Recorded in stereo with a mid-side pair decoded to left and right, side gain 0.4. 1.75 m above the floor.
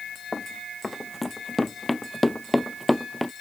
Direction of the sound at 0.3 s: 25° left.